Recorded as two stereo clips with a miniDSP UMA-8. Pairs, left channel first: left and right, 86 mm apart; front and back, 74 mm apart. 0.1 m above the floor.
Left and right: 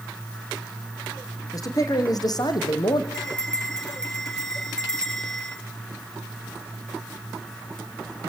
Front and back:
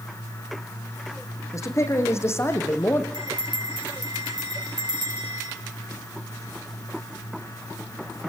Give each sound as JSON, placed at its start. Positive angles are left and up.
{"t": 1.5, "sound": "a man speaking", "azimuth_deg": 45, "distance_m": 5.0}
{"t": 3.1, "sound": "a bell", "azimuth_deg": 175, "distance_m": 5.0}